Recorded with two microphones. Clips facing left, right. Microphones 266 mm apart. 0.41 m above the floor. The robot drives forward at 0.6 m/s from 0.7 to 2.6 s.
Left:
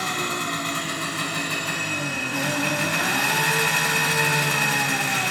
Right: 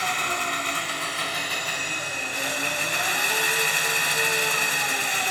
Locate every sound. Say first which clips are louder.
0.0 s an engine running: left 3 dB; 50° left (ahead or behind), 1.8 m; by 5.3 s 75° left (ahead or behind), 1.4 m